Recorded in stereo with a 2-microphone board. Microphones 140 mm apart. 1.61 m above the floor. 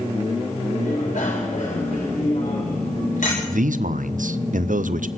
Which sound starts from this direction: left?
A bicycle bell, at 0.8 s.